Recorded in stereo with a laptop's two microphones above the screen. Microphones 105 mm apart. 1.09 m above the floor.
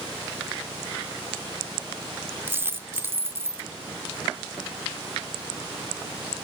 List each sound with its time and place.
2.5 s a dropped coin: 20° right (ahead or behind), 0.6 m